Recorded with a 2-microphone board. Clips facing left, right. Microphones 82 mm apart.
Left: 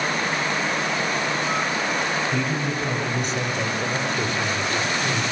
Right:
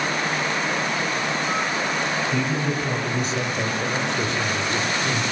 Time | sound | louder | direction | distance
2.3 | a man speaking | right 1 dB | centre (ahead or behind) | 6 m